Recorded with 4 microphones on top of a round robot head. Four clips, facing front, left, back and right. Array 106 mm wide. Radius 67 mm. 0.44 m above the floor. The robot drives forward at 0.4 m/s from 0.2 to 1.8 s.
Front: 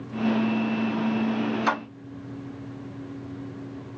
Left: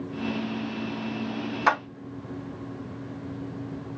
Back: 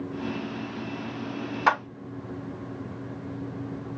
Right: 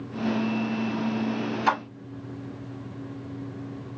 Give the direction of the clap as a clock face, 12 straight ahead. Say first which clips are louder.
Left 1 dB, back 5 dB; 7 o'clock.